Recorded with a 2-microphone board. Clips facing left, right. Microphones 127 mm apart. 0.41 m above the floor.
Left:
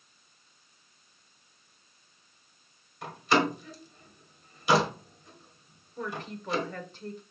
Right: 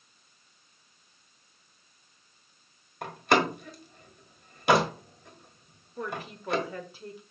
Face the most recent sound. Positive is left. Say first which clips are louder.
# even
turn(degrees=-5)  # may be behind; listen again after turning